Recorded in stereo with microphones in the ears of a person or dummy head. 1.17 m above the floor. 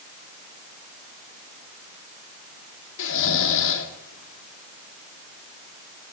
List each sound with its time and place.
3.0 s snoring: 85° left, 2 m